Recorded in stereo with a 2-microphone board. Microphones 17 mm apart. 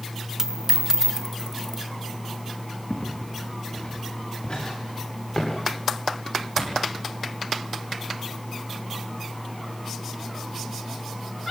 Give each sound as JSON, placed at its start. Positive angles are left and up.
{"t": 0.4, "sound": "a dropped coin", "side_deg": -25, "distance_m": 0.7}
{"t": 2.9, "sound": "footsteps", "side_deg": 50, "distance_m": 7.0}